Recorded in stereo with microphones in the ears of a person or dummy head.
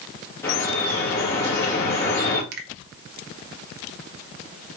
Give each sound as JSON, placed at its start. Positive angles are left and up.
{"t": 0.4, "sound": "dripping", "side_deg": 15, "distance_m": 2.0}
{"t": 2.5, "sound": "a finger snap", "side_deg": -65, "distance_m": 1.0}